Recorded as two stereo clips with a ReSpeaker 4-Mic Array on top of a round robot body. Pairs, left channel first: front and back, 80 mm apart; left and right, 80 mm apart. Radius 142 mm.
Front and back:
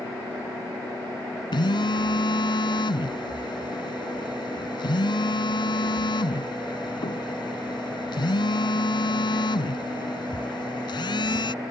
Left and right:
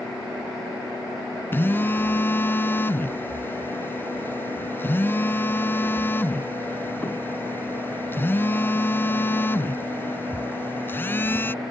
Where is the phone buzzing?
25° left.